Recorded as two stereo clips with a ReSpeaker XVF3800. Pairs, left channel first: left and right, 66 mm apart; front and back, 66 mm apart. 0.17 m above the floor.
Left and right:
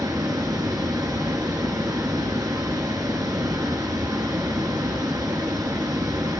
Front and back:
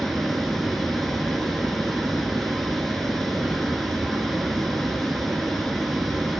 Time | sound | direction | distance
0.0 | running water | 85° right | 1.2 m